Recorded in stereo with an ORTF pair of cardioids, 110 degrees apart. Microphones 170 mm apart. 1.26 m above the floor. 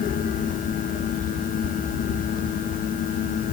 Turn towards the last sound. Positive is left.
turn(degrees=50)